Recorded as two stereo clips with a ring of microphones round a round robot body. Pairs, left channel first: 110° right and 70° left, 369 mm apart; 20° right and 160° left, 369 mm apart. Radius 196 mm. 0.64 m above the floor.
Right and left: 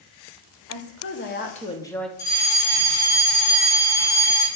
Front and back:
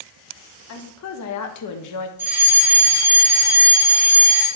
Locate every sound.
0.7 s a woman speaking: 70° right, 1.3 m; by 2.1 s 25° right, 1.0 m
2.2 s a fire alarm: 120° right, 3.5 m